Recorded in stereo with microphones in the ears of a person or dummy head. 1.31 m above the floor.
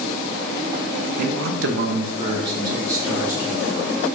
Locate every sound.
1.2 s a man speaking: 45° right (ahead or behind), 0.8 m; by 3.9 s 10° right (ahead or behind), 2 m